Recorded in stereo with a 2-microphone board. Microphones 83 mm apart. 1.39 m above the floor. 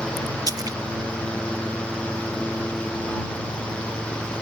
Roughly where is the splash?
Right.